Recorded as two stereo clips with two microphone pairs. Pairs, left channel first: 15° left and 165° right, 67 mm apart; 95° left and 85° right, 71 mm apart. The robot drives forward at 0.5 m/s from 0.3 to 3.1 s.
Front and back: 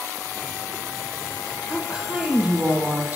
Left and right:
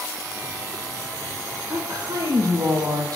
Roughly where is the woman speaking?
Right.